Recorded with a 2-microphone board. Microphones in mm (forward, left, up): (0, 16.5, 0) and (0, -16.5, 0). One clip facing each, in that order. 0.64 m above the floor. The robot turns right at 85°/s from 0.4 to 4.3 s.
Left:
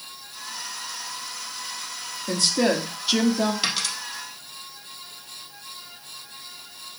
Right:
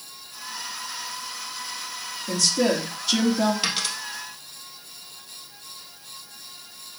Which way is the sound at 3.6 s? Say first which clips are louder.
Even; 5° left (ahead or behind).